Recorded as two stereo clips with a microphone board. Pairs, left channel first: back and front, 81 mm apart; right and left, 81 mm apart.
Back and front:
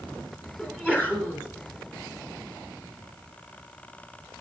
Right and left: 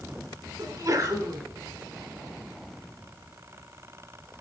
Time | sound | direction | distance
0.6 | a sneeze | 70° left | 2 m